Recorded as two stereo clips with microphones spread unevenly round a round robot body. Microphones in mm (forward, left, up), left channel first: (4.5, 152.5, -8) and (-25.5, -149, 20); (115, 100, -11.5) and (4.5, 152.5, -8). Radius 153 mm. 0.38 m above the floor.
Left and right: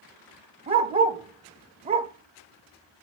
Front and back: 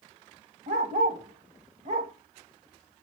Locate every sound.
0.7 s a dog barking: 170° right, 0.6 m